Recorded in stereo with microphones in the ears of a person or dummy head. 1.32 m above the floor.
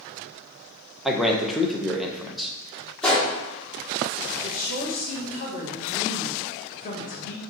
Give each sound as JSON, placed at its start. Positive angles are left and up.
{"t": 1.1, "sound": "a man speaking", "side_deg": -5, "distance_m": 0.6}
{"t": 3.0, "sound": "a gunshot", "side_deg": 5, "distance_m": 1.4}
{"t": 4.4, "sound": "a woman speaking", "side_deg": 40, "distance_m": 1.3}